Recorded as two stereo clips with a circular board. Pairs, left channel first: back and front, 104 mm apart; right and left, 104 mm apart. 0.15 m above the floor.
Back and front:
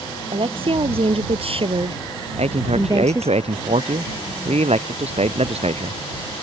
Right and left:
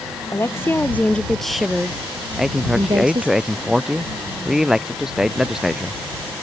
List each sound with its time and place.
0.3 s a woman speaking: 25° right; by 3.4 s 65° left
2.4 s a man speaking: 5° left